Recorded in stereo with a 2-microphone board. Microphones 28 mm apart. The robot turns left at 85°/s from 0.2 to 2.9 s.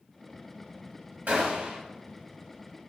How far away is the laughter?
No laughter in this recording.